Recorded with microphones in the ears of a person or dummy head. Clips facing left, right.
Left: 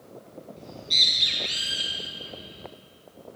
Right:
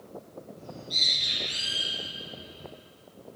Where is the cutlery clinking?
I don't hear cutlery clinking.